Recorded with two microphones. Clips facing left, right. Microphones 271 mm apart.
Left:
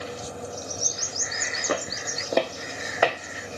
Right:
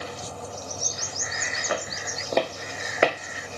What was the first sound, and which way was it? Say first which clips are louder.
Footsteps: left 2 dB; 50° left (ahead or behind).